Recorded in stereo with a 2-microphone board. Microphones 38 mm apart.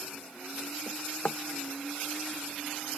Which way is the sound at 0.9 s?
40° left (ahead or behind).